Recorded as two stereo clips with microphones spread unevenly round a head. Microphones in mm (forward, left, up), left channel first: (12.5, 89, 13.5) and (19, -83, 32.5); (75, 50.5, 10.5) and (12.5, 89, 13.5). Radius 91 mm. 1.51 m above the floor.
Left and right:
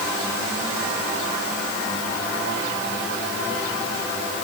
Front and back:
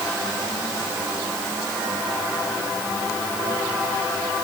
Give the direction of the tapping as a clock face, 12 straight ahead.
I don't hear tapping.